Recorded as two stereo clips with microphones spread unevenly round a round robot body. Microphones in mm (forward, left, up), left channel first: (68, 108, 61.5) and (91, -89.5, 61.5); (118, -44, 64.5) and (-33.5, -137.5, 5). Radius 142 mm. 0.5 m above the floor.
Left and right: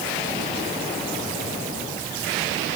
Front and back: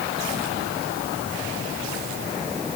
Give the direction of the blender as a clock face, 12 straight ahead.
No blender in this recording.